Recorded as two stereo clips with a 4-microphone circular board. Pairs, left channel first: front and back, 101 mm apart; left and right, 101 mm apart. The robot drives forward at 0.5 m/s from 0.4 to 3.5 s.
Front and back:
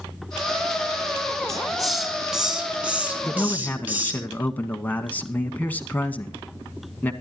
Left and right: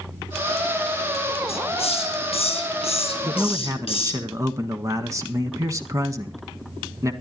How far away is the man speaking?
About 1.3 m.